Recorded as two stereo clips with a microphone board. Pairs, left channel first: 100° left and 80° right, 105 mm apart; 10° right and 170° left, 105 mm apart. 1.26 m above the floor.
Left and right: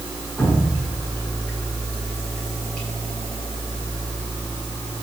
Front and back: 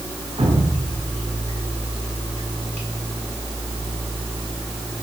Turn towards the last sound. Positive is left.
turn(degrees=180)